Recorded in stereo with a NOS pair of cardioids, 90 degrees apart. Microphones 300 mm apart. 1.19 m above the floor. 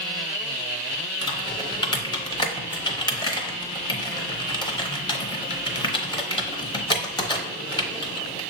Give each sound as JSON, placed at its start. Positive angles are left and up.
{"t": 1.2, "sound": "typing on a keyboard", "azimuth_deg": 15, "distance_m": 0.8}